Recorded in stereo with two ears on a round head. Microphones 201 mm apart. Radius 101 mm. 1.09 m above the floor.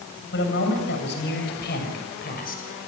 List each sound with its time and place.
0.3 s a man speaking: 60° left (ahead or behind), 7.5 m; by 2.6 s 40° left (ahead or behind), 6.5 m